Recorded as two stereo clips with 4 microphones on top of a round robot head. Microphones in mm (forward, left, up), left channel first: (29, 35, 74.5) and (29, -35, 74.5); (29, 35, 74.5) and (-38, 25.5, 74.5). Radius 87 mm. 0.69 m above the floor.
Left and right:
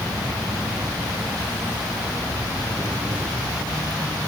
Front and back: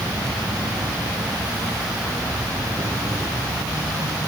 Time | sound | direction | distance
0.0 | an insect | 145° right | 1.6 m